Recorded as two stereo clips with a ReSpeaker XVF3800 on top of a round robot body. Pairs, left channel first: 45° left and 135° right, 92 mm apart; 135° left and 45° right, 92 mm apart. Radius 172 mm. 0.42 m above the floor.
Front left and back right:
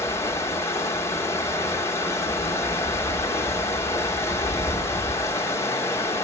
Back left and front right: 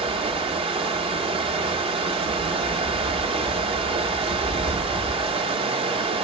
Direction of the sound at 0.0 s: 20° right.